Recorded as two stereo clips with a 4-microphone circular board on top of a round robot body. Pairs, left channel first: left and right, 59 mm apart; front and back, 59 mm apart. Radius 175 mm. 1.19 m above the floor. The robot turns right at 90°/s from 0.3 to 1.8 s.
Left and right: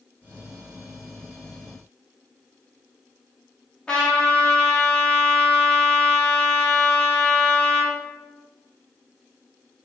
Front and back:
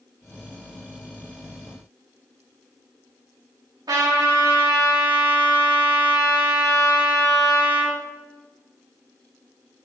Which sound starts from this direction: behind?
A trumpet, at 3.9 s.